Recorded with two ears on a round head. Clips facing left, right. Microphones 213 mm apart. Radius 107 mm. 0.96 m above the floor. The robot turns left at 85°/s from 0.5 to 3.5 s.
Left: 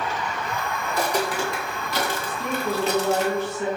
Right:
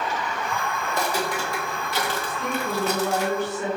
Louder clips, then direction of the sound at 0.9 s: Left 3 dB; 25° right (ahead or behind).